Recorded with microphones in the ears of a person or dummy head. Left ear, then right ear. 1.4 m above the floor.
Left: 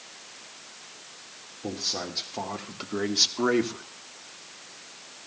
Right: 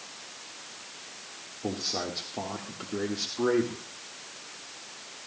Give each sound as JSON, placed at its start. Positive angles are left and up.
{"t": 1.6, "sound": "a man speaking", "side_deg": -10, "distance_m": 1.7}